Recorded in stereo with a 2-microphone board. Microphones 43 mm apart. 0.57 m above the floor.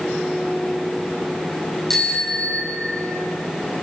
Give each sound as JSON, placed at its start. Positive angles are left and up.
{"t": 1.9, "sound": "a bicycle bell", "side_deg": 5, "distance_m": 7.0}